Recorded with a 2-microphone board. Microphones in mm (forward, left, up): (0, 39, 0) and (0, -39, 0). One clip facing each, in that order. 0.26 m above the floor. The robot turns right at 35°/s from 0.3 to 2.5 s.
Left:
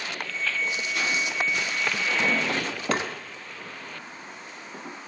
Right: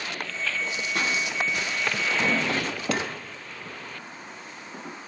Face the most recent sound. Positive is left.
turn(degrees=40)  # may be behind; listen again after turning